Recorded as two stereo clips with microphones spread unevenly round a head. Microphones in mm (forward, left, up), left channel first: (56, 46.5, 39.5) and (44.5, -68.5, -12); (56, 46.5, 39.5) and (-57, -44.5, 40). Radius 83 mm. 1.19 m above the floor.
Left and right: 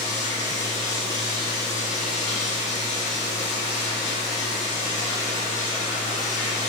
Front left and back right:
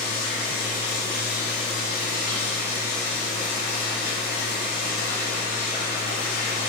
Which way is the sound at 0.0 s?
65° left.